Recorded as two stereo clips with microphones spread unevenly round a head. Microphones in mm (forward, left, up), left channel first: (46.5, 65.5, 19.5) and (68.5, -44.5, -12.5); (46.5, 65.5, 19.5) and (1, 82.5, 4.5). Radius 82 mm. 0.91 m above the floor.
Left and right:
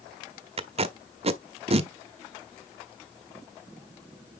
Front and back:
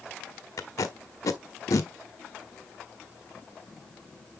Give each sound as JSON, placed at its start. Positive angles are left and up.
{"t": 0.6, "sound": "tape being pulled", "azimuth_deg": -45, "distance_m": 1.0}